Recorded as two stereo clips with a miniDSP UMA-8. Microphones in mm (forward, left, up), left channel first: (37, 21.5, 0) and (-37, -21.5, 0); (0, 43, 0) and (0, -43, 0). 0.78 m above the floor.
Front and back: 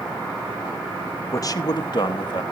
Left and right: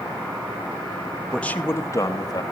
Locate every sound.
1.3 s a man speaking: 10° left, 0.7 m; by 2.4 s 55° left, 1.3 m